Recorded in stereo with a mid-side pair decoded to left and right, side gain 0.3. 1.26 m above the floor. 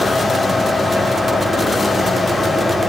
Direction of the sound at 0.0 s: 5° left.